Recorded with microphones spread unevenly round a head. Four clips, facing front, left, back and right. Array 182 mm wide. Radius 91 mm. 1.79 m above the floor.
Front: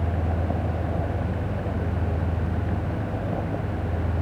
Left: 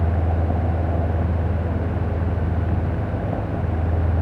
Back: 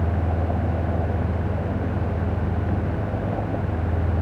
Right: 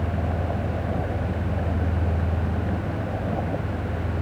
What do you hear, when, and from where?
Only background noise.